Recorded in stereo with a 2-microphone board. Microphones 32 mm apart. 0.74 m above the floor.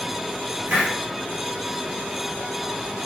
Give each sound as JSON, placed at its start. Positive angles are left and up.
{"t": 0.7, "sound": "a hiss", "side_deg": -70, "distance_m": 1.7}